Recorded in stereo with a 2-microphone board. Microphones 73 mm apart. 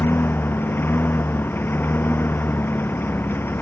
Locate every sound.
0.0 s a lawn mower: 30° left (ahead or behind)